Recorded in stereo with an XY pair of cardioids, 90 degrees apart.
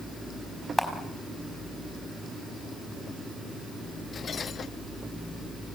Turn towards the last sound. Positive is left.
turn(degrees=15)